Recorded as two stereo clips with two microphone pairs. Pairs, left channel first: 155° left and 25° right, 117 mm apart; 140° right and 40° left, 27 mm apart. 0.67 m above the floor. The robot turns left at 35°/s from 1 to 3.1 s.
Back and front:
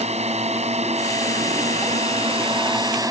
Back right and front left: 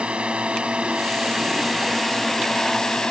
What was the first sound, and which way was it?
A drone, 5° right.